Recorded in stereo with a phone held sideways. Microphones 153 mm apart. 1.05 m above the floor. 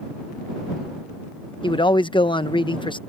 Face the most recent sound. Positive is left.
turn(degrees=30)  # may be behind; listen again after turning